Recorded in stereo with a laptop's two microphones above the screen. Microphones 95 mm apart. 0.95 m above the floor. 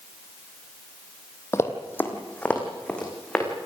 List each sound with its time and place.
1.5 s running footsteps: 30° left (ahead or behind), 1.7 m; by 3.5 s 10° left (ahead or behind), 4 m